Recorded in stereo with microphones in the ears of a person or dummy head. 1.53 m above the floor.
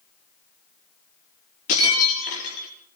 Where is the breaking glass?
70° left (ahead or behind), 6.5 m.